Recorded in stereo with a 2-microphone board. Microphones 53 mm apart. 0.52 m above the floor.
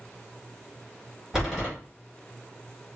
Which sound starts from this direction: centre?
A door slam, at 1.3 s.